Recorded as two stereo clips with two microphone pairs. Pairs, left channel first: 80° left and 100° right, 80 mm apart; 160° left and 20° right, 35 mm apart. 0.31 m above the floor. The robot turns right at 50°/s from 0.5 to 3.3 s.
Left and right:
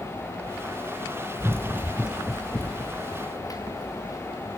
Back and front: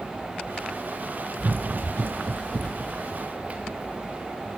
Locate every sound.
1.4 s running footsteps: 40° right, 0.6 m; by 4.3 s 35° left, 2.5 m